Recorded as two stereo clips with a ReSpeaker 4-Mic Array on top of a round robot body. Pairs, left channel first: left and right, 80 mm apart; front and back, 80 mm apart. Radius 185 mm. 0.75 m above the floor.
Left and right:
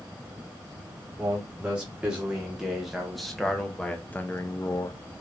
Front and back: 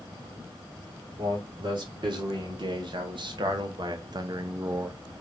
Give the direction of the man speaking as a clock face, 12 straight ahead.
5 o'clock.